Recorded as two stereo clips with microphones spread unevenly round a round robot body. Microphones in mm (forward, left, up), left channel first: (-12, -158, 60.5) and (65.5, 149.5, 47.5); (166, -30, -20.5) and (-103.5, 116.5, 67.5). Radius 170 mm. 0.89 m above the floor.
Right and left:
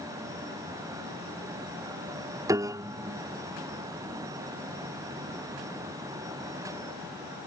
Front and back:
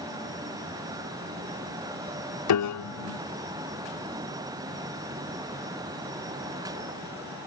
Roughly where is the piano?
Ahead.